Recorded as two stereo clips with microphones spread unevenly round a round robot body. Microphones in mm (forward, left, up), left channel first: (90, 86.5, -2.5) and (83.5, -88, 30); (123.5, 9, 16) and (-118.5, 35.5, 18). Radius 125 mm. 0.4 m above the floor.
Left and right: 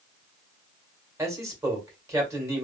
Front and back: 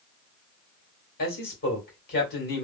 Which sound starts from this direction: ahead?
A man speaking, at 1.2 s.